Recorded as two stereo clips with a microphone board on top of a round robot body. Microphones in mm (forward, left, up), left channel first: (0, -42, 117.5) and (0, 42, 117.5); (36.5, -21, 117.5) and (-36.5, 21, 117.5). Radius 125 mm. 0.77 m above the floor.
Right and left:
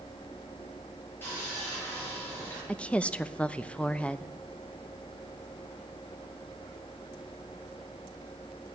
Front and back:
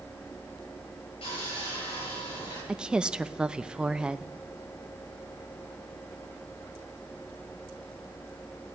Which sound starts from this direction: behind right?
A woman speaking, at 2.7 s.